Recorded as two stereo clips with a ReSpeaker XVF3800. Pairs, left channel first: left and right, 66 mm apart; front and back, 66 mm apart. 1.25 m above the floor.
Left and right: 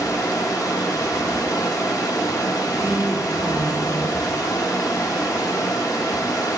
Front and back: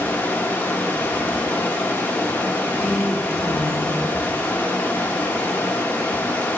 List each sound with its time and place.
0.0 s running water: 65° left, 1.1 m
2.7 s a woman speaking: 95° left, 3.5 m